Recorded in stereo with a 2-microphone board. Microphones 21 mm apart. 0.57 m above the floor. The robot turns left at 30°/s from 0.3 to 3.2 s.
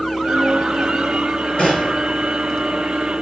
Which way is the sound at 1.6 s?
65° left (ahead or behind).